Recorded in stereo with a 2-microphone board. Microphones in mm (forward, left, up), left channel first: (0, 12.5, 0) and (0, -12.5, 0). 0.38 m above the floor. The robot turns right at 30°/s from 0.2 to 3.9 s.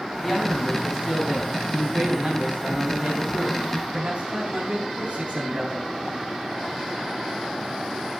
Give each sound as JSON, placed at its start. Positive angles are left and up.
{"t": 0.2, "sound": "a man speaking", "azimuth_deg": 170, "distance_m": 3.0}